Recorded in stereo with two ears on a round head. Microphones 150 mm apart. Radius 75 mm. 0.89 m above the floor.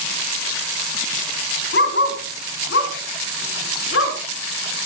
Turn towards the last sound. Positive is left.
turn(degrees=85)